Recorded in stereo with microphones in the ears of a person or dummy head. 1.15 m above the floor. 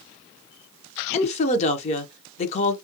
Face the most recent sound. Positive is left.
turn(degrees=40)  # may be behind; listen again after turning